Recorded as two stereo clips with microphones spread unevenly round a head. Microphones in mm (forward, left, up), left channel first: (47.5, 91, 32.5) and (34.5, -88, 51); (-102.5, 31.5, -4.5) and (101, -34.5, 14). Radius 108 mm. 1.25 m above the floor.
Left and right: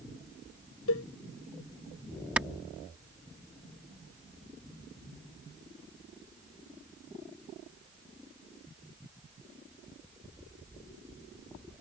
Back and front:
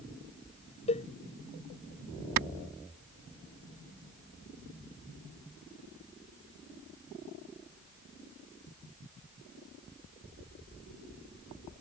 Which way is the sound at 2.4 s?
10° right.